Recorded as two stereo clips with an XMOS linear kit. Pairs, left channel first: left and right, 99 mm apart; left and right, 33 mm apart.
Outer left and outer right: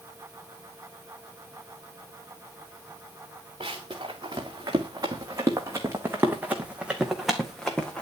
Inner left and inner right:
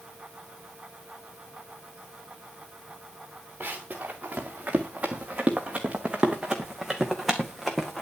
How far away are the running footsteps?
About 4 m.